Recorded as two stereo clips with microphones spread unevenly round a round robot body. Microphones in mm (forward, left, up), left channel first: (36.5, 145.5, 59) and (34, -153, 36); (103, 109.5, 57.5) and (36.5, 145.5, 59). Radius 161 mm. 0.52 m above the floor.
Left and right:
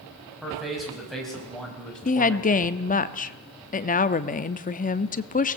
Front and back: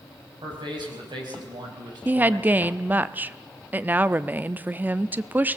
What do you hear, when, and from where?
0.4 s a man speaking: straight behind, 5 m; by 2.7 s 175° left, 3 m
2.0 s a woman speaking: 120° left, 0.7 m